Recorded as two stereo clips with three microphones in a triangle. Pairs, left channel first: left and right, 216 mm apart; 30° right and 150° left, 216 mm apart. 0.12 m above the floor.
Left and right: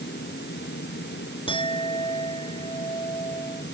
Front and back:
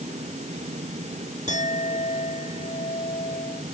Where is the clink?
25° left.